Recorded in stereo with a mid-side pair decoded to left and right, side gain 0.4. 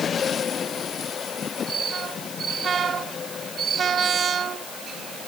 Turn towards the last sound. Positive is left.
No sound to turn to.